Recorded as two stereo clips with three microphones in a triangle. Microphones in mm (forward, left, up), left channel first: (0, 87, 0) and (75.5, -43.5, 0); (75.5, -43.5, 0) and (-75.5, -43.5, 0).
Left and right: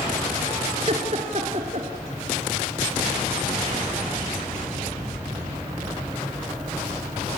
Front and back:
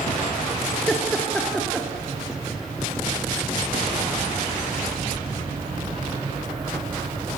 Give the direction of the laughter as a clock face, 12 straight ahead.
3 o'clock.